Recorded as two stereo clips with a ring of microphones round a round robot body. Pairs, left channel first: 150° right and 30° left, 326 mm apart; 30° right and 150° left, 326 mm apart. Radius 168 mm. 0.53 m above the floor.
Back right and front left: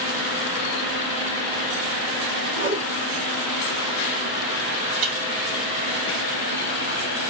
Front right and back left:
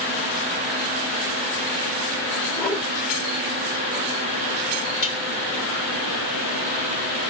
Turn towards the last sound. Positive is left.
turn(degrees=30)